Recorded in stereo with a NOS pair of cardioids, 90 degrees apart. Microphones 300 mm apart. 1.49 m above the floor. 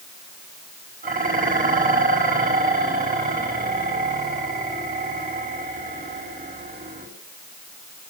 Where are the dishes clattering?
30° right, 6 m.